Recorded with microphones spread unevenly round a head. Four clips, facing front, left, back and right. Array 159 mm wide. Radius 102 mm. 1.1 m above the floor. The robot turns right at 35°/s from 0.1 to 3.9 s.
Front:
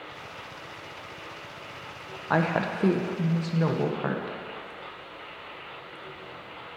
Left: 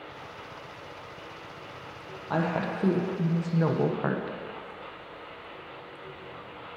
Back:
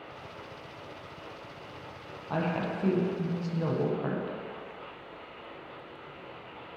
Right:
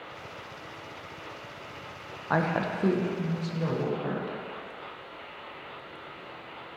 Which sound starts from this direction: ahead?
A woman speaking, at 2.3 s.